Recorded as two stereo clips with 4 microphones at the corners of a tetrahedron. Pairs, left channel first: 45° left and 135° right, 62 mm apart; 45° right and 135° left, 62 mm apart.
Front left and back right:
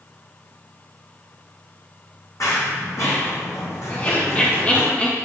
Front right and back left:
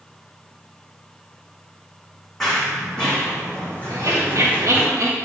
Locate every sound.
2.4 s running footsteps: 35° left, 3 m; by 4.9 s straight ahead, 2.5 m
3.9 s laughter: 110° left, 1.5 m